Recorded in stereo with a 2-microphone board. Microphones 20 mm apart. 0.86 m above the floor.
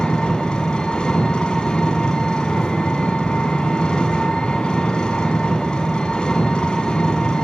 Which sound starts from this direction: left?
An engine running, at 0.0 s.